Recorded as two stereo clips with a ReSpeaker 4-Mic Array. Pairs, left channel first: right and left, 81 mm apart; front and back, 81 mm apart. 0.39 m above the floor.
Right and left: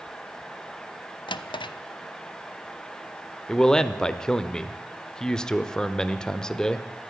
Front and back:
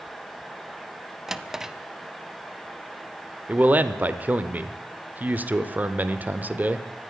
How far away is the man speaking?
About 0.8 m.